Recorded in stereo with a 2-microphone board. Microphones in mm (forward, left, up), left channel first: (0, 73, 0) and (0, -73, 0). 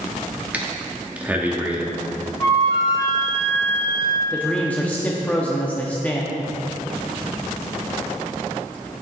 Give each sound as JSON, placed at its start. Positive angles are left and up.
{"t": 0.5, "sound": "breathing", "side_deg": -10, "distance_m": 1.1}
{"t": 2.4, "sound": "a flute", "side_deg": 25, "distance_m": 2.0}
{"t": 4.3, "sound": "a man speaking", "side_deg": 10, "distance_m": 0.8}